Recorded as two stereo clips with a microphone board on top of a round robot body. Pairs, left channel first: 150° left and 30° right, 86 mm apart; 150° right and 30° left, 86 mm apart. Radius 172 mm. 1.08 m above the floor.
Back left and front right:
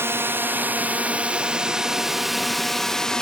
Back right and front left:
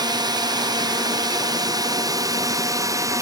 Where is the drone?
25° left; by 3.2 s 70° left.